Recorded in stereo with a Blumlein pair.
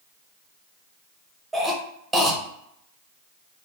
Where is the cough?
10° right, 1.0 m.